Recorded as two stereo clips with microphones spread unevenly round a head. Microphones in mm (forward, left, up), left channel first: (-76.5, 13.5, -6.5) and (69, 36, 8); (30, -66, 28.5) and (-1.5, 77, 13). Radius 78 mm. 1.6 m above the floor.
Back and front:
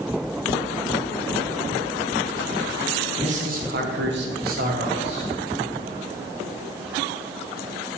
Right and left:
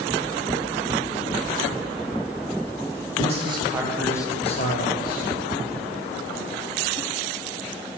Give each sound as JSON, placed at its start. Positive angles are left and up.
{"t": 3.2, "sound": "a man speaking", "azimuth_deg": 55, "distance_m": 1.2}